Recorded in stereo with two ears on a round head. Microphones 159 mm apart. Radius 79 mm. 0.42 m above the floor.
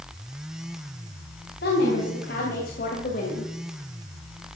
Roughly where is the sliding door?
I don't hear a sliding door.